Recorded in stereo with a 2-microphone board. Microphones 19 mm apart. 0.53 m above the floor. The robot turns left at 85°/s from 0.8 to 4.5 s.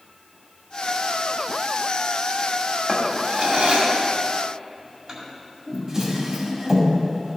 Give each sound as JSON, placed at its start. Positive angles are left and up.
{"t": 2.9, "sound": "a drawer", "side_deg": -15, "distance_m": 1.9}